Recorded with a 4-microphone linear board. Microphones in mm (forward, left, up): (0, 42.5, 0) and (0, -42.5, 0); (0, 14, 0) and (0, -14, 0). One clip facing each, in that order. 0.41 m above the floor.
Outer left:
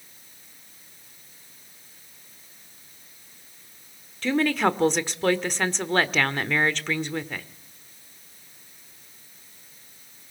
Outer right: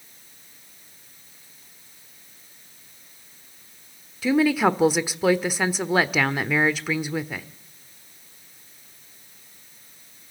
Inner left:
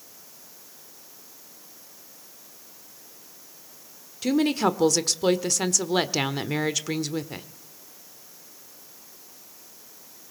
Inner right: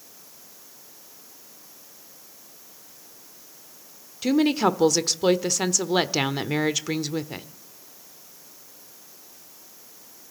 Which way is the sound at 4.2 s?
5° right (ahead or behind).